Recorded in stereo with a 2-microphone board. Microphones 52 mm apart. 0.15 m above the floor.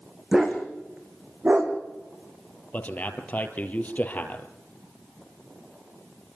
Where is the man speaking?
35° left (ahead or behind), 3 m.